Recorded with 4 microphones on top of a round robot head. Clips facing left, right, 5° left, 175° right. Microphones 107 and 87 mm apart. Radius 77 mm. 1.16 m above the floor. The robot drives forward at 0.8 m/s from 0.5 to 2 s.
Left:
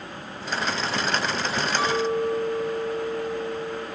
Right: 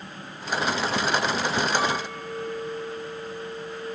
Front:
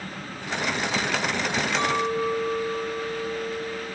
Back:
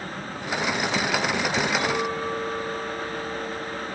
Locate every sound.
1.8 s a clink: straight ahead, 4 m